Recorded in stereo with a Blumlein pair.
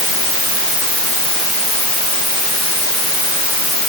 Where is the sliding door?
I don't hear a sliding door.